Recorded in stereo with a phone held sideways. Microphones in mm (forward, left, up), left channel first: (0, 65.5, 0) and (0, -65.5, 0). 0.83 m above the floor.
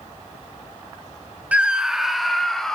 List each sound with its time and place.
1.5 s a scream: 10° right (ahead or behind), 0.8 m; by 2.8 s 5° left (ahead or behind), 1.8 m